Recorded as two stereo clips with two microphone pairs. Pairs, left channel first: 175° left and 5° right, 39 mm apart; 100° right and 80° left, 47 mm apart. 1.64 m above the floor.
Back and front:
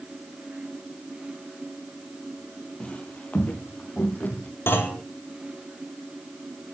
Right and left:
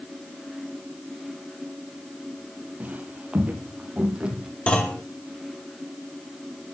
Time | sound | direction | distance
2.8 | footsteps | 125° left | 2.5 m
4.7 | a clunk | 165° right | 4 m